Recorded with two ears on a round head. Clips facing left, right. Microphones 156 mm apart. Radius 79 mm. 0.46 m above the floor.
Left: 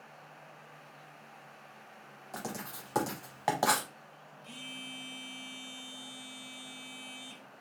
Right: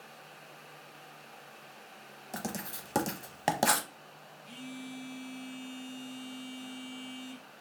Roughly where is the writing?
Right.